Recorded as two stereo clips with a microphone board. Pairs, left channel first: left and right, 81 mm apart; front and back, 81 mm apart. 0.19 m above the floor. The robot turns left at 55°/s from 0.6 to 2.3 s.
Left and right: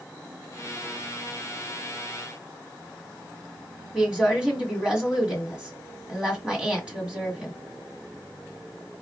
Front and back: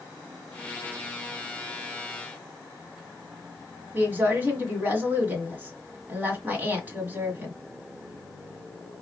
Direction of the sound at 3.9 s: 155° right.